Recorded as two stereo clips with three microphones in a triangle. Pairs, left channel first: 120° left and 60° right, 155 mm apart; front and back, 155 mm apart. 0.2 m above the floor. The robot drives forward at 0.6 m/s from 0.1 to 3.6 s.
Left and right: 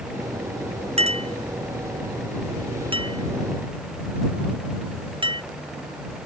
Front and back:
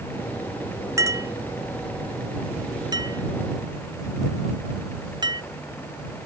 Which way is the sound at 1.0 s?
110° right.